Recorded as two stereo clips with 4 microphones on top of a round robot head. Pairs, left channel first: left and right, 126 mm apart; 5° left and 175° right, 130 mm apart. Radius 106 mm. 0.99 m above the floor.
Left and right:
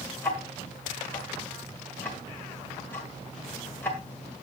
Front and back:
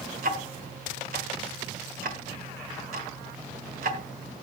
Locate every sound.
0.2 s ticking: 170° left, 1.6 m